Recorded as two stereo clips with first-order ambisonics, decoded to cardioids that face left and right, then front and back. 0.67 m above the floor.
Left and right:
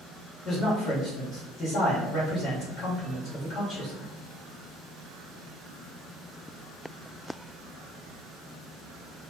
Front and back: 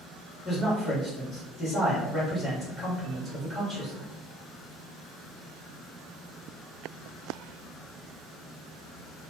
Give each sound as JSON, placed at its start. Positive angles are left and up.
{"t": 0.5, "sound": "a man speaking", "azimuth_deg": 75, "distance_m": 1.2}